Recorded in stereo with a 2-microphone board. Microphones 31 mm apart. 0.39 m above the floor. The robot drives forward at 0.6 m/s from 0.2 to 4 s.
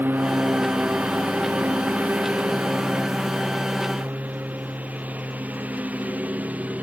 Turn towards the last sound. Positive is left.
turn(degrees=-50)  # may be behind; listen again after turning